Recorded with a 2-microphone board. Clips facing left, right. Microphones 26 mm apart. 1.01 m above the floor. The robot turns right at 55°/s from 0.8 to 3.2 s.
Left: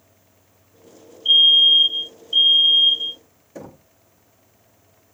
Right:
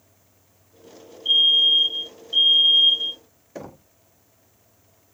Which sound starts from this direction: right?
Knocking, at 3.5 s.